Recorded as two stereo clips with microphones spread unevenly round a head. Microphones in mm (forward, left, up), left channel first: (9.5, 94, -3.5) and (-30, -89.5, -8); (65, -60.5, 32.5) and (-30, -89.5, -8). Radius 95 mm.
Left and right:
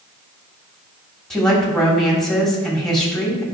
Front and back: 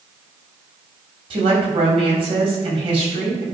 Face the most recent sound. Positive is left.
turn(degrees=165)